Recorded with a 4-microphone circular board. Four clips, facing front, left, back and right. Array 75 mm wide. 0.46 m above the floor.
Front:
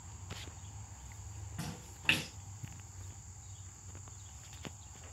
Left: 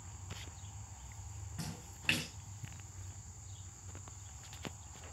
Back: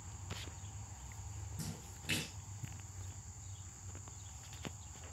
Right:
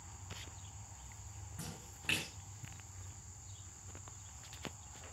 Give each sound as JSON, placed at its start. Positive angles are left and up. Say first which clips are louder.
{"t": 1.6, "sound": "a splash", "louder": "left 3 dB, front 4 dB", "azimuth_deg": 15, "distance_m": 3.5}